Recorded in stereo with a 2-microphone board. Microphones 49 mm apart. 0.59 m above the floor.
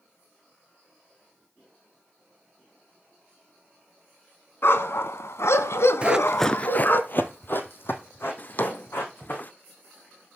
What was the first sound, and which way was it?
A dog barking, 55° left (ahead or behind).